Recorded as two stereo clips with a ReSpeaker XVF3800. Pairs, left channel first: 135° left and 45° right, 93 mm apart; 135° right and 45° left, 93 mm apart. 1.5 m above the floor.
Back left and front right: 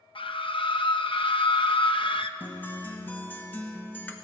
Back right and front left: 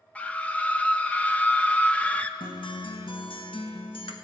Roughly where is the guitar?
Behind right.